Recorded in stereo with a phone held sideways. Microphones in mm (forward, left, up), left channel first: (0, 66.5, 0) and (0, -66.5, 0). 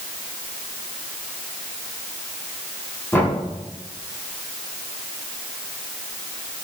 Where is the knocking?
20° left (ahead or behind), 7 m.